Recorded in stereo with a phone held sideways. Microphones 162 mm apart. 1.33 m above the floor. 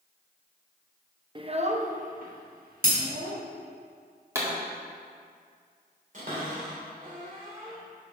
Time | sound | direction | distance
1.4 | a child speaking | 30° right (ahead or behind) | 0.6 m
2.8 | breaking glass | 65° right (ahead or behind) | 3 m
4.3 | a pop | 20° right (ahead or behind) | 1.8 m
6.1 | a cupboard door | 55° right (ahead or behind) | 2.5 m